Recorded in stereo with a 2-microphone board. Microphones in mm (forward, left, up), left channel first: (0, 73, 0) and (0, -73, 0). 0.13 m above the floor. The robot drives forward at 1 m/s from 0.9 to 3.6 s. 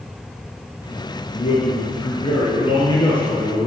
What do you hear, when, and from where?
1.4 s a man speaking: 50° left (ahead or behind), 1.6 m; by 3.7 s 25° left (ahead or behind), 3 m